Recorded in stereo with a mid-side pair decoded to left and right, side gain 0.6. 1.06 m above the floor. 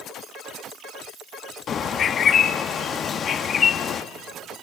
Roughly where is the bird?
Ahead left.